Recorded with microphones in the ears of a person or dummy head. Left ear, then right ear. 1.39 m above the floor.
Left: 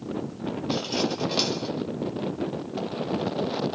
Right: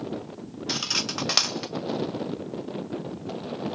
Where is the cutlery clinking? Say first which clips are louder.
Right 2 dB; 45° right (ahead or behind), 0.7 m.